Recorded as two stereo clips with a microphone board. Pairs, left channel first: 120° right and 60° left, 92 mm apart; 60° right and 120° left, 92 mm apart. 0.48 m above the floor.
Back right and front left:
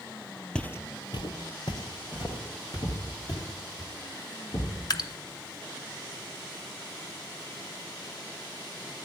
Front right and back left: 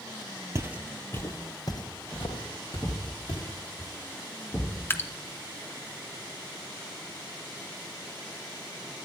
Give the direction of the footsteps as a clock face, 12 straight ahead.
7 o'clock.